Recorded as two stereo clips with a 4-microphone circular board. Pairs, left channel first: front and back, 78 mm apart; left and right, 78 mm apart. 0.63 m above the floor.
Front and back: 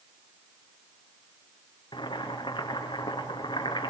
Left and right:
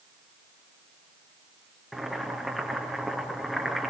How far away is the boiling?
About 5 m.